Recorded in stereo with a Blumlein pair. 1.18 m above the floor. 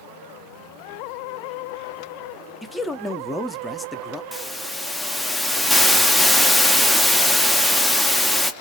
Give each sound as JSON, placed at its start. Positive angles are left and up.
{"t": 2.6, "sound": "a man speaking", "azimuth_deg": 5, "distance_m": 0.5}
{"t": 4.3, "sound": "a hiss", "azimuth_deg": 0, "distance_m": 0.5}